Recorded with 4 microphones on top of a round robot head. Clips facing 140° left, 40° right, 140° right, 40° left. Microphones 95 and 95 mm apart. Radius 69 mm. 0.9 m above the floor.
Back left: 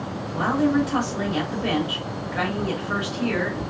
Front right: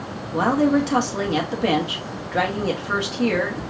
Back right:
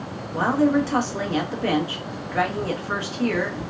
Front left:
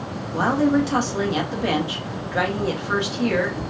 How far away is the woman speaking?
About 1.5 m.